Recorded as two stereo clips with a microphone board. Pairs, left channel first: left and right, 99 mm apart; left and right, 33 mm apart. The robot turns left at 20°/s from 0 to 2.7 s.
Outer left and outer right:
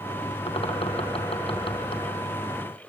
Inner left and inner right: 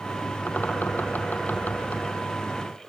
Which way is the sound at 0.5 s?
75° left (ahead or behind).